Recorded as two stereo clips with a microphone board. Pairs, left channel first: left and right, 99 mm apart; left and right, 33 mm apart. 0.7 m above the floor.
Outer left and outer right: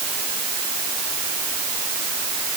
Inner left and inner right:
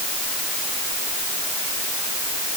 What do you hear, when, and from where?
Only background noise.